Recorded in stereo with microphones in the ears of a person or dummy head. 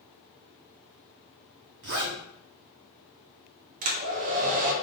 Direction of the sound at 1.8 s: 45° right (ahead or behind).